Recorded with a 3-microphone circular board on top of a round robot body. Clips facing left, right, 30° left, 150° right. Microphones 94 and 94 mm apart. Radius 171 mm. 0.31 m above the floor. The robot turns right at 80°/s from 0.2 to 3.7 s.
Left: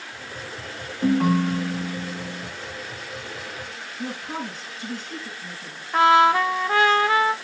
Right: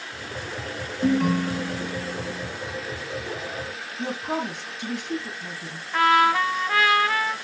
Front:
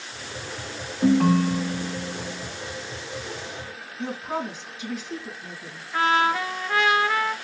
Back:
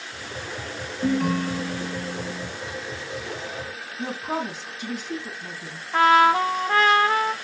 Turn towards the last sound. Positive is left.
turn(degrees=155)